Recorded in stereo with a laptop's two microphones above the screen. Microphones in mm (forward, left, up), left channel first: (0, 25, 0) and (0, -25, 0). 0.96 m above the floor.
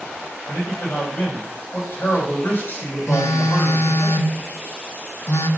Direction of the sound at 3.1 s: 75° left (ahead or behind).